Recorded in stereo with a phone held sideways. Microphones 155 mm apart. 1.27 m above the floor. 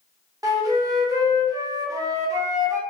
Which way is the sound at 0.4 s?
20° right (ahead or behind).